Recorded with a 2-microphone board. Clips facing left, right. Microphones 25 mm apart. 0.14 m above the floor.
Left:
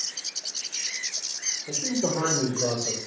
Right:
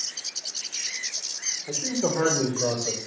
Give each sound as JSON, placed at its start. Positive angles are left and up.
{"t": 1.7, "sound": "a man speaking", "side_deg": -70, "distance_m": 8.5}